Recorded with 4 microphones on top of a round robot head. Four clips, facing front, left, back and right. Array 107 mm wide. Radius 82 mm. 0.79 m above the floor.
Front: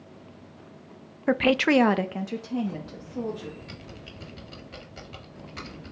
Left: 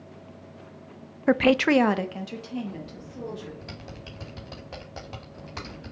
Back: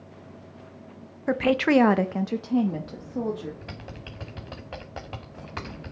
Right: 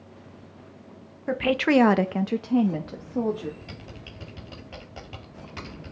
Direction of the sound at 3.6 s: 160° left.